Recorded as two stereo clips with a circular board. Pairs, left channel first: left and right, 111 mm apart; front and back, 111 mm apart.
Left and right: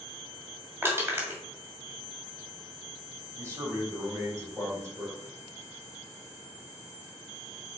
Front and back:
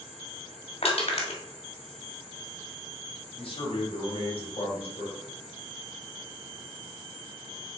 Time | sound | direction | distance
0.8 | crushing | 20° right | 1.6 m
3.4 | a man speaking | 30° right | 2.5 m